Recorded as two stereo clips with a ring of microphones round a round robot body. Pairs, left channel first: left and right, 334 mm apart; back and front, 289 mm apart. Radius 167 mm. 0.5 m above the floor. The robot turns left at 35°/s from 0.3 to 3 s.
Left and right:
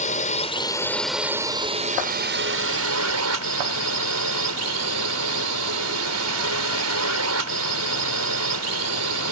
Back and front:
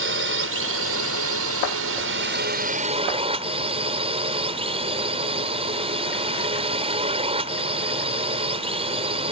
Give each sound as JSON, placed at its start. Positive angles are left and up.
{"t": 0.0, "sound": "a drone", "azimuth_deg": 30}